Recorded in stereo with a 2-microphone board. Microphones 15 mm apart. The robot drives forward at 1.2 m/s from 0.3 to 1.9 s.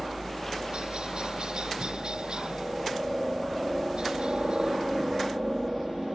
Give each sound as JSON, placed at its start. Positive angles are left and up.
{"t": 0.0, "sound": "a helicopter", "side_deg": -65}